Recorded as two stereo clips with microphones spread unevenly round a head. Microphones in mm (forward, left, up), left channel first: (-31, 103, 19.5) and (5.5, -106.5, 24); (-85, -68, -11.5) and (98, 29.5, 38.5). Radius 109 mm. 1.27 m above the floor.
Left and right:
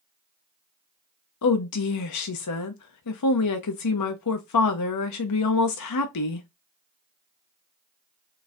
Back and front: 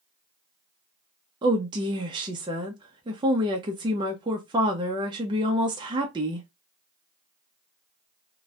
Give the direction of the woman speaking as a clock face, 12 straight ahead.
9 o'clock.